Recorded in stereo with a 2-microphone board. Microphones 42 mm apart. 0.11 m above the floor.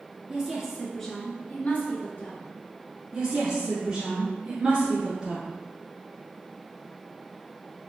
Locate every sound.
0.3 s a woman speaking: 20° right (ahead or behind), 1.5 m; by 2.5 s 50° left (ahead or behind), 2 m
3.1 s a woman speaking: 25° right (ahead or behind), 1.5 m